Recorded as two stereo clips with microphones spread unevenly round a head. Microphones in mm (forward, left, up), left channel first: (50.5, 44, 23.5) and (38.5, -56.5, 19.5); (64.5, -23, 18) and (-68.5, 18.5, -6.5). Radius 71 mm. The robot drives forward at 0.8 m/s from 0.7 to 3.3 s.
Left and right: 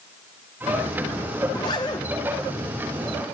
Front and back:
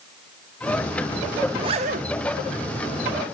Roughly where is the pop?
I don't hear a pop.